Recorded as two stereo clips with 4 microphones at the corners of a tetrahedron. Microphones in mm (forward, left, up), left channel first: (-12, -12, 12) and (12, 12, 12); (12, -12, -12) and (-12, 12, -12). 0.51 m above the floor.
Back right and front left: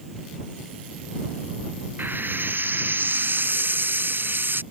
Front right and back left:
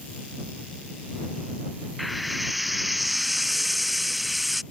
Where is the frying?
50° left.